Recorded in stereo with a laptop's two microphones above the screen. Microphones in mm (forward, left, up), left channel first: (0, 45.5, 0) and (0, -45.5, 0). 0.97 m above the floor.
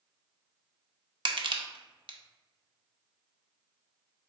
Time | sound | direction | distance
1.2 | crushing | 65° right (ahead or behind) | 0.5 m